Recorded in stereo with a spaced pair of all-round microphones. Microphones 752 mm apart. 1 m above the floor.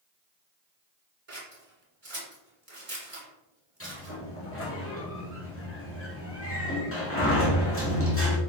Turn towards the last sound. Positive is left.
turn(degrees=20)  # may be behind; listen again after turning